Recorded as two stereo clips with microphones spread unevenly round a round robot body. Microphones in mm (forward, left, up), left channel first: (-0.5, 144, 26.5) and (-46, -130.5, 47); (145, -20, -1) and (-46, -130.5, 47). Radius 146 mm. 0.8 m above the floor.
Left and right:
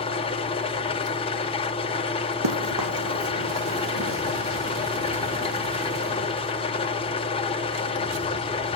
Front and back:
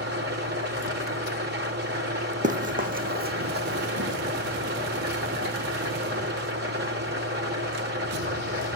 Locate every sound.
0.0 s an engine running: 150° left, 1.5 m
2.4 s running footsteps: 105° right, 2 m; by 4.2 s 135° right, 1.7 m